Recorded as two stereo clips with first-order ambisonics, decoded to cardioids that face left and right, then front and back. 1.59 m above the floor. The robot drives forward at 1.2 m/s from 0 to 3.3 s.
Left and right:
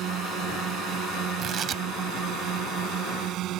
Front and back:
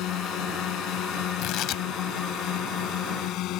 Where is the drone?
40° right.